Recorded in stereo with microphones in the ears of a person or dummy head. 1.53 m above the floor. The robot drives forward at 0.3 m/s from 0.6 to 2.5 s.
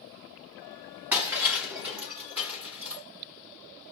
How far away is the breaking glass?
About 0.9 m.